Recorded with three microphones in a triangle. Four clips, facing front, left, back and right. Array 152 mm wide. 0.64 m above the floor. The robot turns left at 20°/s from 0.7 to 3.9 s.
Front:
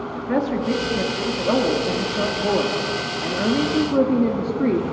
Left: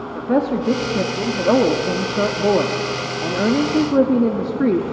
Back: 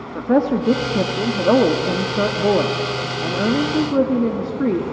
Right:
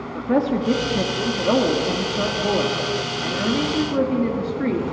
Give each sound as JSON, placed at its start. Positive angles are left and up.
{"t": 0.1, "sound": "a woman speaking", "azimuth_deg": 165, "distance_m": 1.2}